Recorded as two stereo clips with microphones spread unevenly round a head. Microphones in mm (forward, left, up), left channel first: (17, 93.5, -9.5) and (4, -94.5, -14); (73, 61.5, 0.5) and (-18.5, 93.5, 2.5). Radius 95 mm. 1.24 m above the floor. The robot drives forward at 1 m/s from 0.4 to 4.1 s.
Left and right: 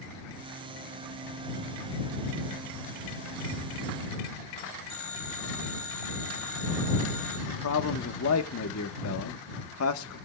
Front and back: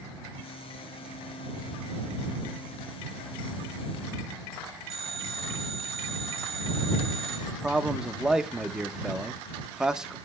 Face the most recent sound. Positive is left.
turn(degrees=75)